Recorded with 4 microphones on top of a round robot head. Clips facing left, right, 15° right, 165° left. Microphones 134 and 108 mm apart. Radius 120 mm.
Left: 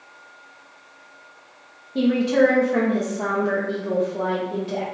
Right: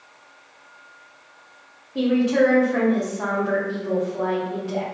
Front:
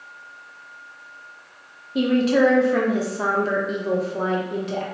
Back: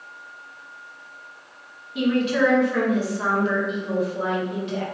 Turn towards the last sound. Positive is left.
turn(degrees=20)